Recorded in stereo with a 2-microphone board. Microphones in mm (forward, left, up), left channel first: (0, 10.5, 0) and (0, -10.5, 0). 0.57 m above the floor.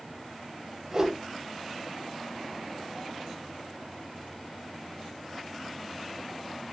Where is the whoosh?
20° right (ahead or behind), 4 m.